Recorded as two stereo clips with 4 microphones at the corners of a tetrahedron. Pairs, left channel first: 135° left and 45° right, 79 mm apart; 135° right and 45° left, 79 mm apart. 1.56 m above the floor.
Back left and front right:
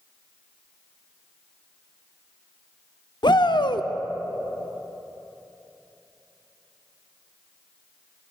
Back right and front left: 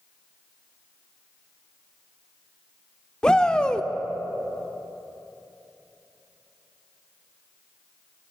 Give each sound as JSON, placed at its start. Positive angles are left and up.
{"t": 3.2, "sound": "a shout", "azimuth_deg": 145, "distance_m": 0.5}